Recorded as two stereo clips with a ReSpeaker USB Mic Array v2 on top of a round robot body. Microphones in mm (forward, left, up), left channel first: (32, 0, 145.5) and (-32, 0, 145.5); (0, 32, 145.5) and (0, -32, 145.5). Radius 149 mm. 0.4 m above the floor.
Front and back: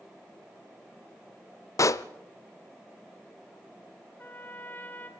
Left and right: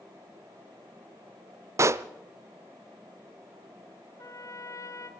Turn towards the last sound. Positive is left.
turn(degrees=60)